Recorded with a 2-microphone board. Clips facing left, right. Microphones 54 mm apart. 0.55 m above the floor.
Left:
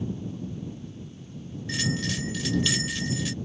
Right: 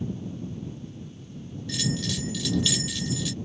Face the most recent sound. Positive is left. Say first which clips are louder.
# left 1 dB
turn(degrees=40)  # may be behind; listen again after turning